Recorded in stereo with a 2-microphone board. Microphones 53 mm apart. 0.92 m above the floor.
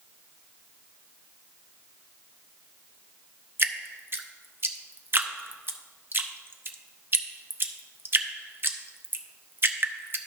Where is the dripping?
45° right (ahead or behind), 0.6 m.